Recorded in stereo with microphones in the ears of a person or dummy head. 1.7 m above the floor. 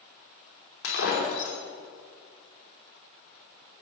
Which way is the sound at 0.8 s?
70° left (ahead or behind).